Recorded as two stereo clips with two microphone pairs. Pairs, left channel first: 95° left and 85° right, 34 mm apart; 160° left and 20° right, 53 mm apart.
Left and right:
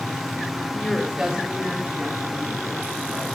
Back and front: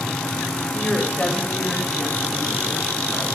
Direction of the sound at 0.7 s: 130° left.